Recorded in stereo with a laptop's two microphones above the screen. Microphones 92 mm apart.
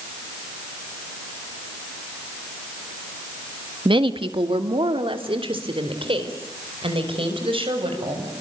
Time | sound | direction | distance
3.9 | a woman speaking | 65° right (ahead or behind) | 1.6 m